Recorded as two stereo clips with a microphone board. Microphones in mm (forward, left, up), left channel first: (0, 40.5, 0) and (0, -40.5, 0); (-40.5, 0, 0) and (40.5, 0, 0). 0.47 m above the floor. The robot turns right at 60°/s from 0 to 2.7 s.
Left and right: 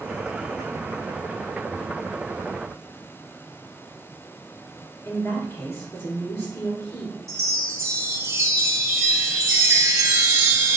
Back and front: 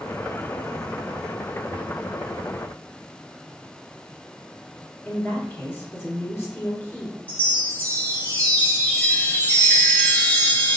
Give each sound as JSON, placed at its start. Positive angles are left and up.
{"t": 5.0, "sound": "a woman speaking", "azimuth_deg": 130, "distance_m": 1.9}
{"t": 7.3, "sound": "a chime", "azimuth_deg": -120, "distance_m": 0.6}